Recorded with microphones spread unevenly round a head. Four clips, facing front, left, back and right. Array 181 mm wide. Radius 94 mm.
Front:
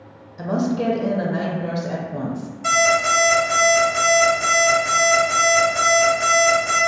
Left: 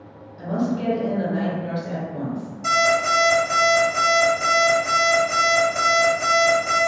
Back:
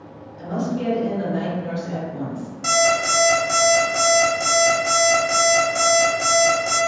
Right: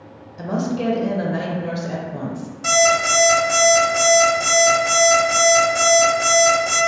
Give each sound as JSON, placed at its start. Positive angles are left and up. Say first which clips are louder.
{"t": 0.4, "sound": "a woman speaking", "louder": "right 1 dB, front 3 dB", "azimuth_deg": -40, "distance_m": 0.5}
{"t": 2.6, "sound": "an alarm clock", "louder": "right 2 dB, front 1 dB", "azimuth_deg": 170, "distance_m": 1.0}